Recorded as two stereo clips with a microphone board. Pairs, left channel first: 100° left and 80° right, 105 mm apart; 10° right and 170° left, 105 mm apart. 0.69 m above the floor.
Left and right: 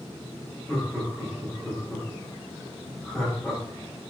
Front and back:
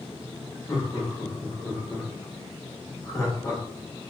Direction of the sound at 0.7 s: 15° left.